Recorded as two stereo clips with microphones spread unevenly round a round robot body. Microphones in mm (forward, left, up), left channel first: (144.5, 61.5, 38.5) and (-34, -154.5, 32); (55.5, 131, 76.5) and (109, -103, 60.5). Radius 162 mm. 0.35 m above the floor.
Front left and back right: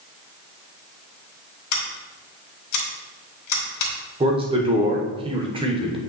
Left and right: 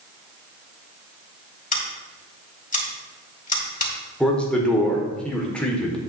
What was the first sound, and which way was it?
Scissors, 45° left.